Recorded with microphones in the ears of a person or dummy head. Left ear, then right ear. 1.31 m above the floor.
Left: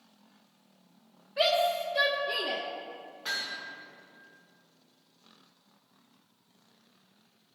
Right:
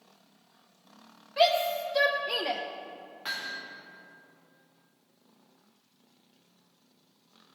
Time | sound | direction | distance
1.4 | a shout | 70° right (ahead or behind) | 1.8 m
3.2 | hammering | 25° right (ahead or behind) | 2.5 m